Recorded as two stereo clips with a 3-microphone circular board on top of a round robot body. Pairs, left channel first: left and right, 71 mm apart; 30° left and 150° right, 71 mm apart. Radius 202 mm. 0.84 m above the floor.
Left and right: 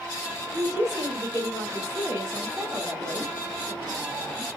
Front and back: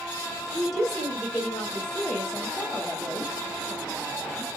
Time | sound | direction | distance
0.5 | a woman speaking | 65° right | 1.9 m